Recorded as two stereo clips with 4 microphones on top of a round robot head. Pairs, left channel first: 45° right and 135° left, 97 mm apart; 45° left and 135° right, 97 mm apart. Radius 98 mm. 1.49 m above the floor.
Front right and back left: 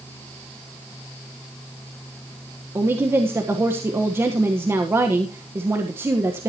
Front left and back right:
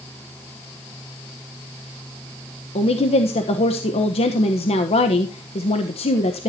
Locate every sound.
2.8 s a woman speaking: 65° left, 1.3 m